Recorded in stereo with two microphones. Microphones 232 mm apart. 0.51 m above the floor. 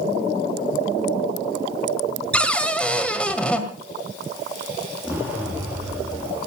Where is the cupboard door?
5° left (ahead or behind), 1.8 m.